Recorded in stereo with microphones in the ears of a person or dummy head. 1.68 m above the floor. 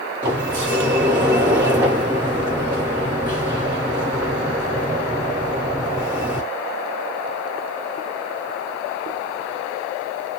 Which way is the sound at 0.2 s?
15° right (ahead or behind).